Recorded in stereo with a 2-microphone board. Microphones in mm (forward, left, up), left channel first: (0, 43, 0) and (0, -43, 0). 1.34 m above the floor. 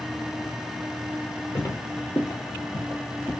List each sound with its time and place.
1.6 s footsteps: 35° left (ahead or behind), 1.6 m; by 3.3 s 10° left (ahead or behind), 1.8 m